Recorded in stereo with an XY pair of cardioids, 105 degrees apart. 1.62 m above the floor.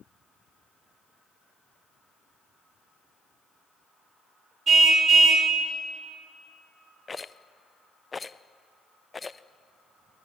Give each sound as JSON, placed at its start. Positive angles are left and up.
{"t": 4.7, "sound": "a car horn", "azimuth_deg": -45, "distance_m": 3.0}
{"t": 7.1, "sound": "a rattle", "azimuth_deg": 25, "distance_m": 0.5}